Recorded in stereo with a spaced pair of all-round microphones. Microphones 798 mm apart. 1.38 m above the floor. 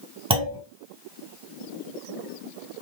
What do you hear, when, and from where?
0.3 s a clunk: 5° right (ahead or behind), 1.8 m